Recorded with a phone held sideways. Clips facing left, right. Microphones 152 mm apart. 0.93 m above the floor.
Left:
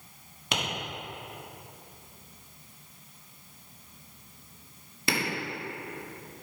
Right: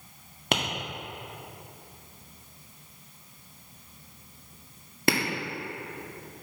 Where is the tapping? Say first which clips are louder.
Right 3 dB; 60° right (ahead or behind), 1.7 m.